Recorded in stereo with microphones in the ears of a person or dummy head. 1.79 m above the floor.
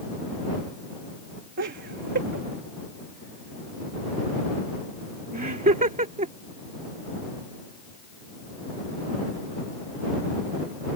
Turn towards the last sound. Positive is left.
turn(degrees=-35)  # may be behind; listen again after turning